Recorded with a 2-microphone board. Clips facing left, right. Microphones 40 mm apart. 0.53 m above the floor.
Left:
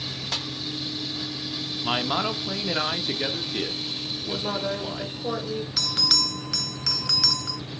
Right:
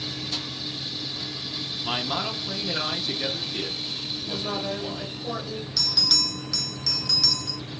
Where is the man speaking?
20° left (ahead or behind), 0.7 m.